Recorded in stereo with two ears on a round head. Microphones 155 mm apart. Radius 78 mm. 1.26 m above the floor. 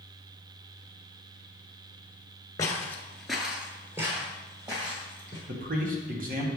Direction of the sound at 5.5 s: 50° right (ahead or behind).